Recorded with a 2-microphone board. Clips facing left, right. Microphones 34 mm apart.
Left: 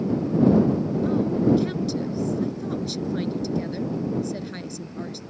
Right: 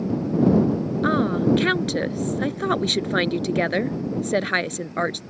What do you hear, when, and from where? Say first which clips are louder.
1.0 s a woman speaking: right 2 dB; 65° right (ahead or behind)